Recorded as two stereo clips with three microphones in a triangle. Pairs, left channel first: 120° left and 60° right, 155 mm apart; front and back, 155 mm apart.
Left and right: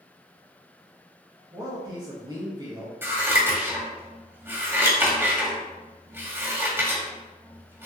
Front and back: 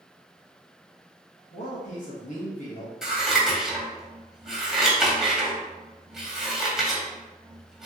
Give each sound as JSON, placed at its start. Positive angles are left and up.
{"t": 1.5, "sound": "a man speaking", "azimuth_deg": -5, "distance_m": 2.0}
{"t": 3.0, "sound": "scissors", "azimuth_deg": -100, "distance_m": 1.6}